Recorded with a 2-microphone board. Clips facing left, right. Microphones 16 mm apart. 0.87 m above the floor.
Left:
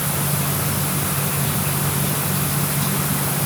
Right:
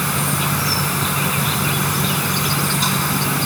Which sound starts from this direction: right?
An insect, at 0.0 s.